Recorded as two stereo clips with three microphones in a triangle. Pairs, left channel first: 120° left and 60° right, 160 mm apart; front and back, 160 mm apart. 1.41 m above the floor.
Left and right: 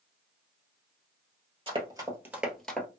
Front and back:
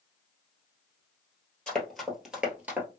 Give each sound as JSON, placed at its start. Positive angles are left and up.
{"t": 1.7, "sound": "running footsteps", "azimuth_deg": -80, "distance_m": 1.7}